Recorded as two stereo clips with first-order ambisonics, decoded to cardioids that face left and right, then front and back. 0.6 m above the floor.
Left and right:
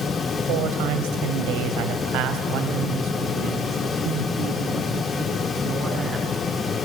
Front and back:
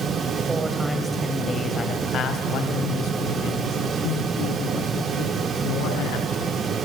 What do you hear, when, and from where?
0.5 s a man speaking: 105° right, 3 m; by 6.6 s 15° right, 8 m